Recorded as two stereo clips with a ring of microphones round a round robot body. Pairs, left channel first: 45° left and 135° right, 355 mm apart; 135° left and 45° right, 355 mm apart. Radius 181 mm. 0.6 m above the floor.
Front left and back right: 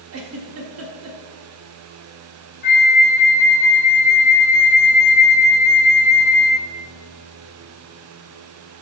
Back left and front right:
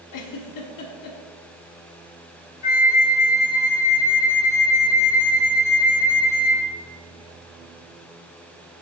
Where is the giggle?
175° left, 1.0 m.